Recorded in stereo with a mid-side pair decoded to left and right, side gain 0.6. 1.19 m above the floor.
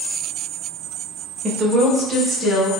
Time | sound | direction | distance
1.4 | a woman speaking | 25° right | 1.1 m